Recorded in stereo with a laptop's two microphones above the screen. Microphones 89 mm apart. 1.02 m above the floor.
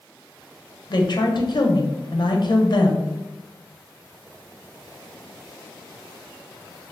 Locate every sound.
0.9 s a woman speaking: 55° left (ahead or behind), 0.6 m